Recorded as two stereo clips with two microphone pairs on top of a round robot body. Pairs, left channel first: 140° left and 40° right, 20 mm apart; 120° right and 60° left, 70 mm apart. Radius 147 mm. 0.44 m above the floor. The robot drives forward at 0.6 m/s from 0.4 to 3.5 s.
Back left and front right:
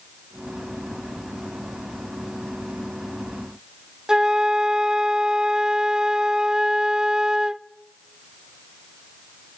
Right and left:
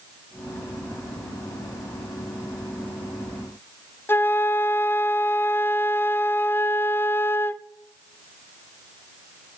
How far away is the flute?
About 0.9 m.